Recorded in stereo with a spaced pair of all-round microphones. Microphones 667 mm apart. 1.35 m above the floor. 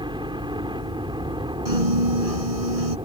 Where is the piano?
55° right (ahead or behind).